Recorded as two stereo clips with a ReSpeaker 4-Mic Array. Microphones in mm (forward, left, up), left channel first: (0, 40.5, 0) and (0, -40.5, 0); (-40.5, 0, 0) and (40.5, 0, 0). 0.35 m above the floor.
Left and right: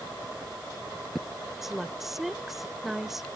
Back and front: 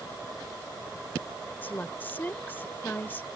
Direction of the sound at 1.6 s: 170° right.